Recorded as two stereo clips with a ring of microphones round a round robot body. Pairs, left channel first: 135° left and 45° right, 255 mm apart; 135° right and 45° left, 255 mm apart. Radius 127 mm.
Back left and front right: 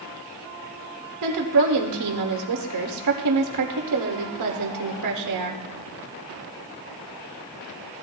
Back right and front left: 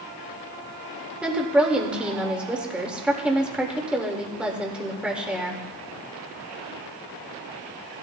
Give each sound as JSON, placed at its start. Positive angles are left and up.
{"t": 1.2, "sound": "a woman speaking", "azimuth_deg": -40, "distance_m": 1.9}